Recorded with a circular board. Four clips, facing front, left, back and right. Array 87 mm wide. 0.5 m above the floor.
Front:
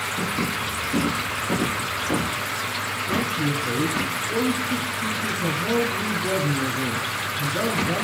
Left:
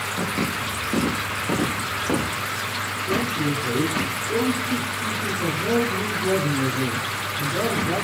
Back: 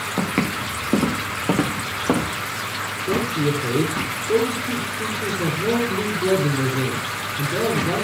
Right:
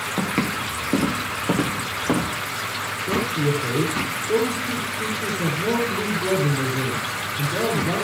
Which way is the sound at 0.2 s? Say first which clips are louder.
Right 3 dB, back 5 dB; 155° right.